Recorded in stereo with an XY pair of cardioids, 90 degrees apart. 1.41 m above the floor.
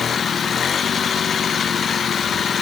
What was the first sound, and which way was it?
Only background noise.